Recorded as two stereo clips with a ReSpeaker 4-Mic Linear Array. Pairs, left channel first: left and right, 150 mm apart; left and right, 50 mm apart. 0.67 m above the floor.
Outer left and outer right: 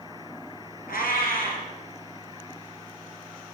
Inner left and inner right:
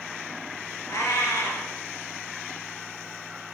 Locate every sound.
0.9 s a cat meowing: 75° left (ahead or behind), 1.6 m